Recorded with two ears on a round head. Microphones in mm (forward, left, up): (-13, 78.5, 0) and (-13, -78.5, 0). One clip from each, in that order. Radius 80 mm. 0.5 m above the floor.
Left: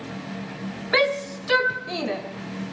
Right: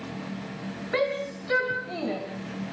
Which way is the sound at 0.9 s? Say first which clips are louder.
Left 6 dB; 65° left (ahead or behind).